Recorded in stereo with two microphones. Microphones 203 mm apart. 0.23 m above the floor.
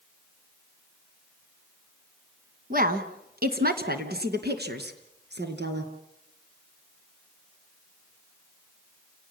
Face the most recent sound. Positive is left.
turn(degrees=-60)  # may be behind; listen again after turning